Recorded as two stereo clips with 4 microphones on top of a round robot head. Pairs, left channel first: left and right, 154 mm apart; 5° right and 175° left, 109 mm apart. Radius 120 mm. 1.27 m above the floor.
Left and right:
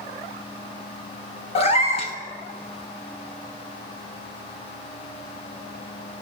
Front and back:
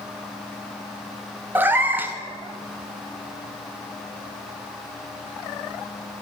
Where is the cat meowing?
115° left, 0.7 m.